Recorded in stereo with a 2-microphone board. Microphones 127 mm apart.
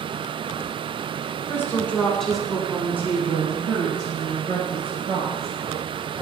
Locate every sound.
1.5 s a woman speaking: 20° left (ahead or behind), 1.2 m; by 5.5 s 50° right (ahead or behind), 2 m